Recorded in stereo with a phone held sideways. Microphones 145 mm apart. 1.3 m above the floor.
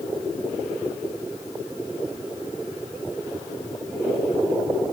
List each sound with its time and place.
Only background noise.